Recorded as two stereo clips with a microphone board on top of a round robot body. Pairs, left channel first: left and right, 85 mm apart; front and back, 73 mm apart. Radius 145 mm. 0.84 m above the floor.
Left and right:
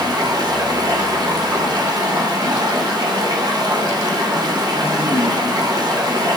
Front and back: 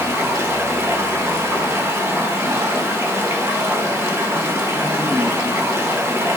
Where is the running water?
125° right, 1.1 m.